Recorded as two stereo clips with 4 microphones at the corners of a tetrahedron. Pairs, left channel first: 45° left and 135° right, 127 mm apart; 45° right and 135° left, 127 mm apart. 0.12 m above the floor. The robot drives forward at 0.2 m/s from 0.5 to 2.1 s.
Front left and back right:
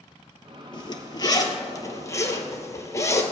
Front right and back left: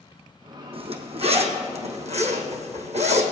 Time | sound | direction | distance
0.7 | a zipper | 95° left | 1.2 m